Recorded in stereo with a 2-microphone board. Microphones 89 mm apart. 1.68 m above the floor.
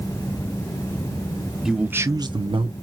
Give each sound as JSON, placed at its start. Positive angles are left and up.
{"t": 1.6, "sound": "a man speaking", "side_deg": -5, "distance_m": 1.0}